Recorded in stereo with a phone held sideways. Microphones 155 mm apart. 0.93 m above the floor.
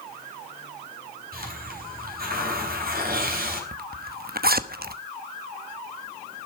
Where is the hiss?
65° right (ahead or behind), 4 m.